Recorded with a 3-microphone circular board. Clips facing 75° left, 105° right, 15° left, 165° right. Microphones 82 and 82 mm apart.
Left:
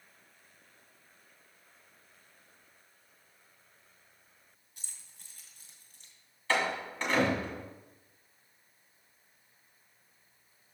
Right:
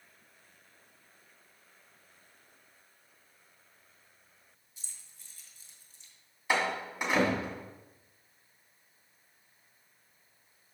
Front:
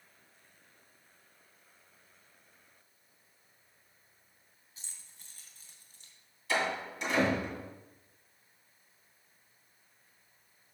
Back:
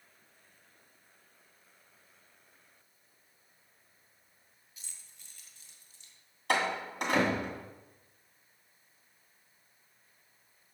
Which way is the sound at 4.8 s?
65° left.